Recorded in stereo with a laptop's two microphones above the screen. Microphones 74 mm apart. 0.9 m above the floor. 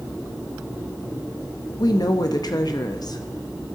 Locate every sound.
1.8 s a woman speaking: 65° left (ahead or behind), 0.7 m